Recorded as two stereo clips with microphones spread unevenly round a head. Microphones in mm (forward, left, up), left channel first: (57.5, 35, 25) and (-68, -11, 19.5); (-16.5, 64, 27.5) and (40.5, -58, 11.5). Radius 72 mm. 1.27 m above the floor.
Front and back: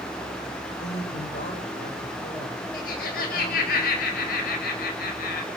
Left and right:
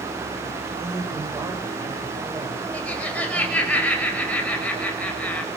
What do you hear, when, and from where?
0.8 s a woman speaking: 5° left, 6 m
2.7 s laughter: 35° left, 6.5 m